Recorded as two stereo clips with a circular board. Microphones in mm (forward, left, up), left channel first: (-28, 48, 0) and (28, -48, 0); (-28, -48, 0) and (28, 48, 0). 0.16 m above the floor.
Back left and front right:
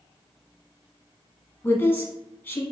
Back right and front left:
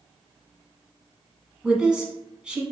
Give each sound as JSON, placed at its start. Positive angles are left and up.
{"t": 1.6, "sound": "a woman speaking", "azimuth_deg": 125, "distance_m": 1.1}